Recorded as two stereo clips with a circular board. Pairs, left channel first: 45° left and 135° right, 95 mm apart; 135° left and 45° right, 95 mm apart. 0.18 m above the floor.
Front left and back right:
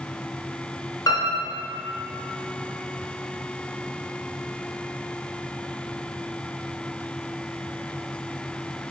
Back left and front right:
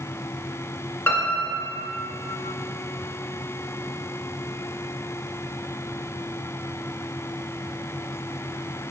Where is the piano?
80° left, 0.8 m.